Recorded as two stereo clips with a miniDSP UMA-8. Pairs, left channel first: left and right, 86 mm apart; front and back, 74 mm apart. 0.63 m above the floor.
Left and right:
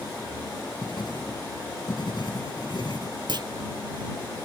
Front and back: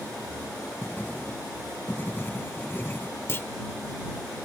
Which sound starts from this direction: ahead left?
Writing, at 0.8 s.